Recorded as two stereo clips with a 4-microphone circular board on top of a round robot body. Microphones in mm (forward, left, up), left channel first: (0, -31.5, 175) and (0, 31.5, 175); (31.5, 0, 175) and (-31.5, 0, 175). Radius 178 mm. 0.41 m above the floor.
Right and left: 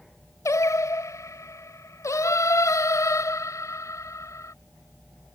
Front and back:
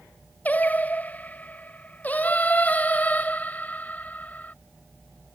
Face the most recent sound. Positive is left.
turn(degrees=-60)